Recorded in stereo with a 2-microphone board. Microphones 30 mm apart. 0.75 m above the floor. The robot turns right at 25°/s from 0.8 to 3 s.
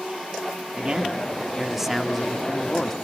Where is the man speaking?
35° right, 1.2 m; by 3.0 s 20° left, 1.2 m.